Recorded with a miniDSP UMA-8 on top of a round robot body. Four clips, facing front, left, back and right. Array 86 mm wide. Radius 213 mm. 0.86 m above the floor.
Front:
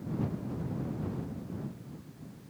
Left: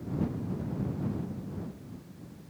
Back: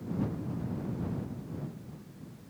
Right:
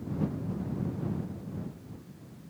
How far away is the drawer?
I don't hear a drawer.